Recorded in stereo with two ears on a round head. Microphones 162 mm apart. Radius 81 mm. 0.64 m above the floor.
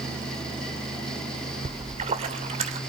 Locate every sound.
1.6 s a splash: 35° right (ahead or behind), 2 m